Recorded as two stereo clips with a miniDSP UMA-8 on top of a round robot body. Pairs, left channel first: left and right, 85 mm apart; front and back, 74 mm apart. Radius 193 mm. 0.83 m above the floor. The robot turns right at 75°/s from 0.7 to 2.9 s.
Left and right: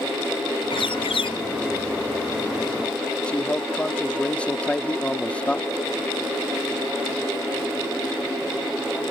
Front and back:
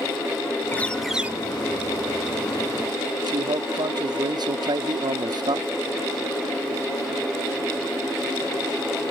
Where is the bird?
65° left; by 1.4 s 115° left.